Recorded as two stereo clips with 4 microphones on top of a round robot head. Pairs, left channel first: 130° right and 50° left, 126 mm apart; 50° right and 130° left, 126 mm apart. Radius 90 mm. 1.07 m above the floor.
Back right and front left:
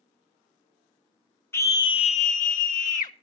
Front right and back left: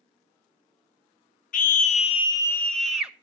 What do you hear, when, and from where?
1.5 s a scream: 55° right, 0.7 m; by 3.1 s 150° right, 0.9 m